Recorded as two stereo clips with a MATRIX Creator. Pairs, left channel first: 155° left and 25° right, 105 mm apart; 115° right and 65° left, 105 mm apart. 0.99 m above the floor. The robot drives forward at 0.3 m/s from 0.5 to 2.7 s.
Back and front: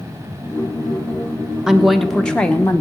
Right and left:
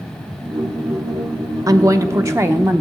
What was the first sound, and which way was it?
A woman speaking, 55° left.